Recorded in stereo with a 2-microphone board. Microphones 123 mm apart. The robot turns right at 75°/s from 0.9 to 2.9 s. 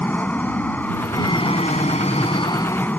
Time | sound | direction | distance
0.0 | an aircraft | 15° left | ?